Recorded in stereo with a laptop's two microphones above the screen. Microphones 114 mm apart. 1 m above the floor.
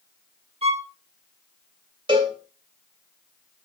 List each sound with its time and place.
0.6 s a violin: 60° right (ahead or behind), 1.4 m
2.1 s a cowbell: 45° right (ahead or behind), 2.5 m